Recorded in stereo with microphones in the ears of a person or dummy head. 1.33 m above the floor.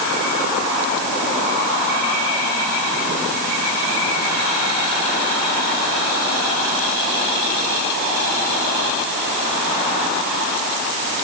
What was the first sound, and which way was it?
Only background noise.